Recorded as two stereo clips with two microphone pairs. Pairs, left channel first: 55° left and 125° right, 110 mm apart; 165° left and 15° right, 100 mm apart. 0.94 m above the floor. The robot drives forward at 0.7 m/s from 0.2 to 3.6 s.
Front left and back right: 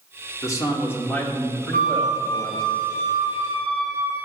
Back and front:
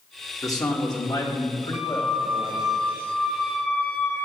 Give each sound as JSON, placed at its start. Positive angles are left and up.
{"t": 0.4, "sound": "a man speaking", "azimuth_deg": 115, "distance_m": 1.8}
{"t": 1.7, "sound": "a flute", "azimuth_deg": 65, "distance_m": 2.5}